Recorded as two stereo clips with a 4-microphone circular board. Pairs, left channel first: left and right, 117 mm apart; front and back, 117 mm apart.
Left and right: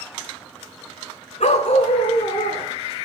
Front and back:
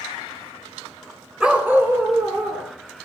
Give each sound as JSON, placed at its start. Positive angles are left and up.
{"t": 1.4, "sound": "a dog barking", "azimuth_deg": 100, "distance_m": 1.0}